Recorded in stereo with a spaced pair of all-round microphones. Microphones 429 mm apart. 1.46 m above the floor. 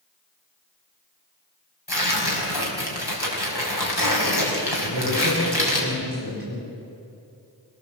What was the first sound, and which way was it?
Tearing paper, 60° left (ahead or behind).